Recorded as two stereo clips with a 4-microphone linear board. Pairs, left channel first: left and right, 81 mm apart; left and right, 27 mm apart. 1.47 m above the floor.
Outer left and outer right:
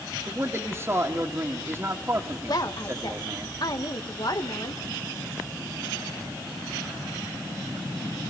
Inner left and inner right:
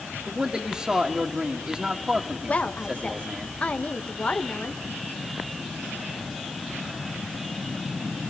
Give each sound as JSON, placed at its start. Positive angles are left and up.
{"t": 0.3, "sound": "a man speaking", "side_deg": -30, "distance_m": 2.0}
{"t": 2.5, "sound": "a woman speaking", "side_deg": 60, "distance_m": 1.8}